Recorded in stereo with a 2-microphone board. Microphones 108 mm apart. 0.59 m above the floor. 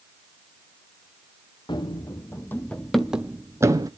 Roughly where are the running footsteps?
Left.